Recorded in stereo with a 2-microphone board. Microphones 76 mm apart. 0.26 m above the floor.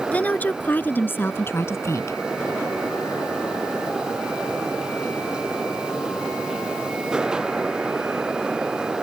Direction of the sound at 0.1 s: 20° left (ahead or behind).